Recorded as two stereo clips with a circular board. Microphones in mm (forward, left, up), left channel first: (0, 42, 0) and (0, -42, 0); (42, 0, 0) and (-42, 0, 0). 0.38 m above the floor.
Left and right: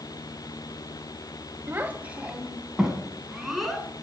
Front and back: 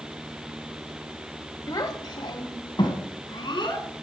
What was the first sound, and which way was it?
A child speaking, 30° right.